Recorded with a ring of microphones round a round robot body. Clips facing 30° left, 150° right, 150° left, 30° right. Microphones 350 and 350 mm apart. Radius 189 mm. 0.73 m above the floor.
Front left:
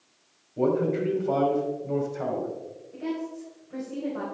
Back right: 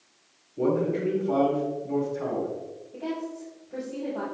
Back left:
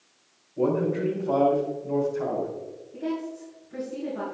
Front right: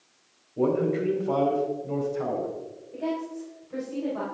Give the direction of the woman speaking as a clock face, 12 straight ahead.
1 o'clock.